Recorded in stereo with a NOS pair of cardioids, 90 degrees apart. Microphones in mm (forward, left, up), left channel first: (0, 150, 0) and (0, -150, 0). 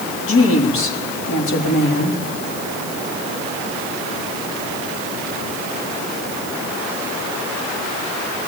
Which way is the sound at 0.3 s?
45° left.